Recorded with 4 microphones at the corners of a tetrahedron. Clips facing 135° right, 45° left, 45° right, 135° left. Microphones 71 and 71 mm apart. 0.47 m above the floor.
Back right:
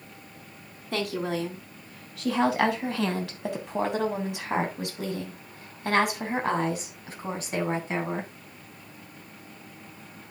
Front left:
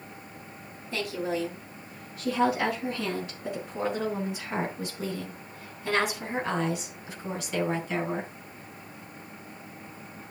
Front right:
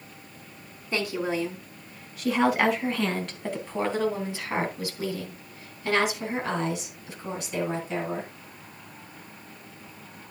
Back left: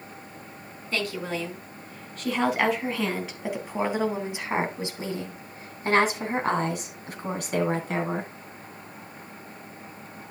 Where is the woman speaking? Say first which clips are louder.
Back right 1 dB, front right 2 dB; 120° right, 3.5 m; by 8.3 s 165° left, 3.5 m.